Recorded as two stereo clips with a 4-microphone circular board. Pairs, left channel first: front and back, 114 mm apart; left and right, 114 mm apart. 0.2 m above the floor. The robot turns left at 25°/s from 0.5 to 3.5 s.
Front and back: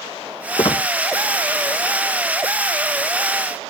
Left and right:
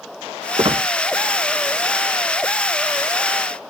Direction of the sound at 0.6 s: 45° right.